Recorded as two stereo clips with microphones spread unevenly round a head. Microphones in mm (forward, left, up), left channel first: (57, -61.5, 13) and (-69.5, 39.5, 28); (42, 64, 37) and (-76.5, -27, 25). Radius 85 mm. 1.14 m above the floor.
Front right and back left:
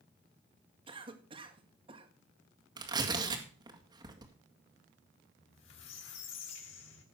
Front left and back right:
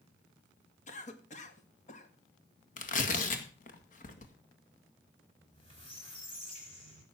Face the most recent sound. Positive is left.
turn(degrees=-20)